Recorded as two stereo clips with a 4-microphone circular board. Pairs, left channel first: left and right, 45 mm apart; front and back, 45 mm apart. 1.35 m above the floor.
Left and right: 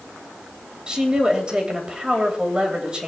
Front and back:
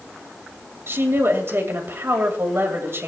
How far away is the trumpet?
No trumpet in this recording.